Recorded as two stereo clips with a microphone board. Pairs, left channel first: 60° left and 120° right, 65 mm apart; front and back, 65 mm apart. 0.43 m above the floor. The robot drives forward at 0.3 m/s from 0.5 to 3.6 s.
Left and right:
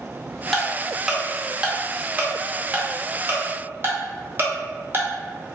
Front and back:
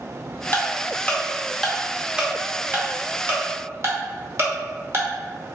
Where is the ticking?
25° right, 0.7 m; by 5.1 s 160° right, 0.8 m.